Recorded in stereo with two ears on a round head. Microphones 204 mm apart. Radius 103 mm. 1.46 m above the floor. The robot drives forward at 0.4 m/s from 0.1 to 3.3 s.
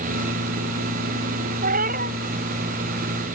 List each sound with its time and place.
1.6 s a cat meowing: 35° right (ahead or behind); by 2.1 s 40° right (ahead or behind)